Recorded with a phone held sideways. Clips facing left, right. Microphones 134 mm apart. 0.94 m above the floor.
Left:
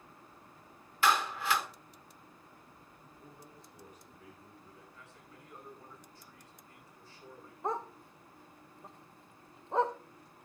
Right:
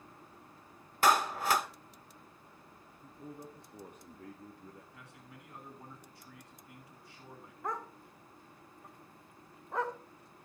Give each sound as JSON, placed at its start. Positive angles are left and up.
{"t": 1.0, "sound": "a clap", "side_deg": -45, "distance_m": 1.3}
{"t": 3.0, "sound": "a man speaking", "side_deg": -60, "distance_m": 1.9}
{"t": 4.9, "sound": "a man speaking", "side_deg": -80, "distance_m": 9.5}
{"t": 7.6, "sound": "a dog barking", "side_deg": 25, "distance_m": 0.9}